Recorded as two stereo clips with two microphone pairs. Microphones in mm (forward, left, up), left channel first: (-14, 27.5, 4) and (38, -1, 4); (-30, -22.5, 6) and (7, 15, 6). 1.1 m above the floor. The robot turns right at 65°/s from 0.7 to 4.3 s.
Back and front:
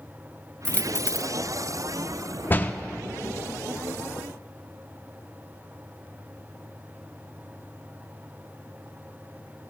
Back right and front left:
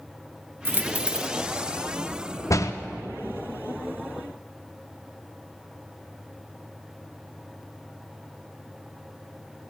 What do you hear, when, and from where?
0.7 s a dropped coin: 95° left, 0.7 m; by 1.3 s 135° left, 0.7 m
2.5 s a door slam: 150° right, 0.5 m; by 2.7 s 135° right, 0.5 m